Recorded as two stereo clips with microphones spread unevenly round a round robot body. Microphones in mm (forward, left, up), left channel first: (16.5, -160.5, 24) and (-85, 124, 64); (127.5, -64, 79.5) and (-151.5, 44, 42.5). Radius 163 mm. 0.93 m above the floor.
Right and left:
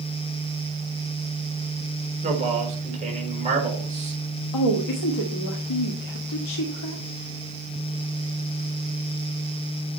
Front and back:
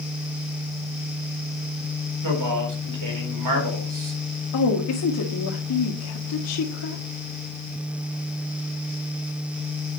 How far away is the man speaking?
About 4.5 m.